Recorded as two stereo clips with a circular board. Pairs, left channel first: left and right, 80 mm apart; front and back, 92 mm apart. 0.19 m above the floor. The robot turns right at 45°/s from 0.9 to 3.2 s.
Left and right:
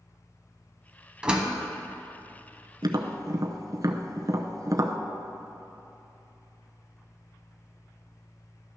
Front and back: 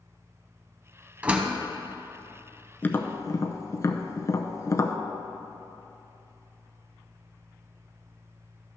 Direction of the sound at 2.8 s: 70° right.